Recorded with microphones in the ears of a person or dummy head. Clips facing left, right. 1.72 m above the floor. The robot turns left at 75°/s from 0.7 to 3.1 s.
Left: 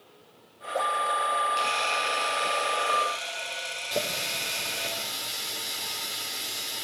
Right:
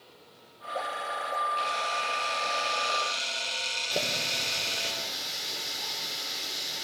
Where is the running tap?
Centre (ahead or behind), 4.5 m.